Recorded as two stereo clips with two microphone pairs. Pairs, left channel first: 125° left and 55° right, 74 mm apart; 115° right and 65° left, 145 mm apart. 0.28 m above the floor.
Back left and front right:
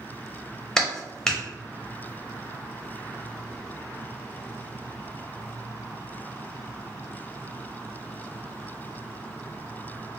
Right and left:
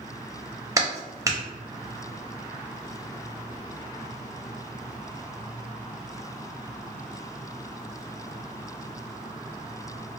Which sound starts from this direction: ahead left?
A clap, at 0.8 s.